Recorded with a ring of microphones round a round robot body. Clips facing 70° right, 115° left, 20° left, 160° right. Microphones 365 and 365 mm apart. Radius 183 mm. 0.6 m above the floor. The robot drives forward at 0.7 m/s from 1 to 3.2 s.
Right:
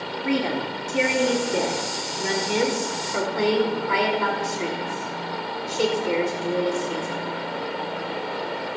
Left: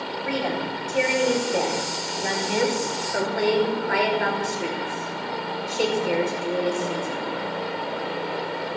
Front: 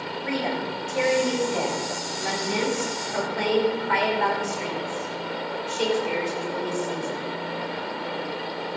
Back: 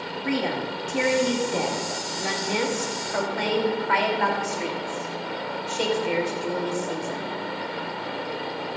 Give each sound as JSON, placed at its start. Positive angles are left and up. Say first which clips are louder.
{"t": 0.2, "sound": "a woman speaking", "louder": "right 4 dB, back 2 dB", "azimuth_deg": -115, "distance_m": 1.9}